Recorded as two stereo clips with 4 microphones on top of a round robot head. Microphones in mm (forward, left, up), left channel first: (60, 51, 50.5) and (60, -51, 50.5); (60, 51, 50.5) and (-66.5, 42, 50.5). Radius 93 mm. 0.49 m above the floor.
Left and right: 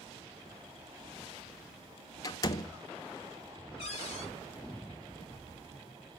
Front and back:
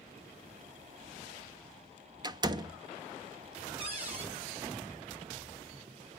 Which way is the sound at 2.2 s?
135° left.